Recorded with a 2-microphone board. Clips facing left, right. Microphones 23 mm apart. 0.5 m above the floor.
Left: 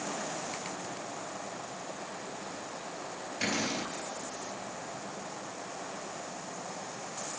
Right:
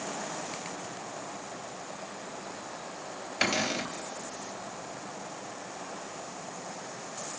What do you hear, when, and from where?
3.4 s a cupboard door: 65° right (ahead or behind), 3 m